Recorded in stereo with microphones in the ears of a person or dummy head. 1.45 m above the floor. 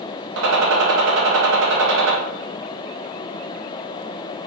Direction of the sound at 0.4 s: 75° right (ahead or behind).